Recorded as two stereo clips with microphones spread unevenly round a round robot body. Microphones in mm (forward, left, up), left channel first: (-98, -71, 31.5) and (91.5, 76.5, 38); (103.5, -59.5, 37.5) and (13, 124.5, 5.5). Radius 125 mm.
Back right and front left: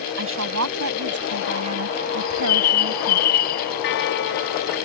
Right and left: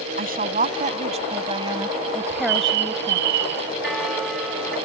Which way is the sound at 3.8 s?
155° right.